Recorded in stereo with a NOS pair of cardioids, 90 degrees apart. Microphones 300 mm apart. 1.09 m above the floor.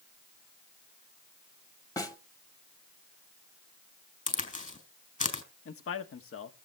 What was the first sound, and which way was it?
A snare drum, 10° left.